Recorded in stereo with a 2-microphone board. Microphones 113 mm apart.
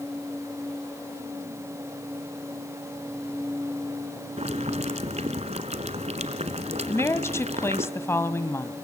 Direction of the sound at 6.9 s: 25° left (ahead or behind).